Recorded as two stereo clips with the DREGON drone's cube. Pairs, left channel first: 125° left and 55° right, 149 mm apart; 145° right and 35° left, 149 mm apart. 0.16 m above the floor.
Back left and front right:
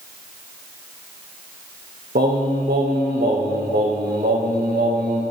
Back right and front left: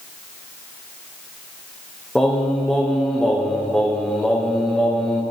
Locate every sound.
2.1 s singing: 60° right, 2.5 m